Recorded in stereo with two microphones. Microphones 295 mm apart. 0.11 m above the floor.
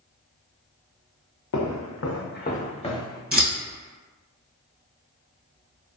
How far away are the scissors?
About 1.1 m.